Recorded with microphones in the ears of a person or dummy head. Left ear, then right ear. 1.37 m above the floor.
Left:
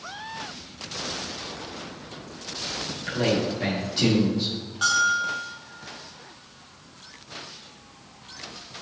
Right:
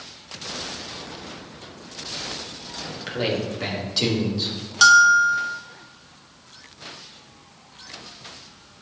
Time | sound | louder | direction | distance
2.9 | a man speaking | even | 20° right (ahead or behind) | 2.5 m
4.8 | a bell | right 9 dB | 60° right (ahead or behind) | 0.9 m